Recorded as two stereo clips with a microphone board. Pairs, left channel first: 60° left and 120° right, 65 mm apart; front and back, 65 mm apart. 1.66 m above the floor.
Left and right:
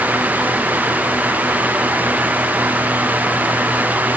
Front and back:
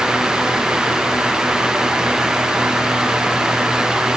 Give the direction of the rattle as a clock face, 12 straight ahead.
No rattle in this recording.